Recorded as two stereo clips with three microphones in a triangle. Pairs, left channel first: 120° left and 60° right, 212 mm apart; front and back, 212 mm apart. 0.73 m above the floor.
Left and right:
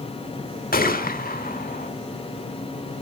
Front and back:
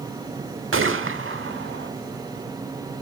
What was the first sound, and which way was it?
A gunshot, 165° left.